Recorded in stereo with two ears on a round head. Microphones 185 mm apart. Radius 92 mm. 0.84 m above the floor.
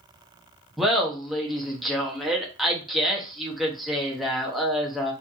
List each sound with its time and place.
0.8 s laughter: centre (ahead or behind), 1.0 m